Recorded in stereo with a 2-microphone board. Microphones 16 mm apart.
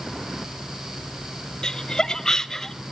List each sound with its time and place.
1.6 s laughter: 65° left (ahead or behind), 1.6 m; by 2.7 s 40° left (ahead or behind), 1.3 m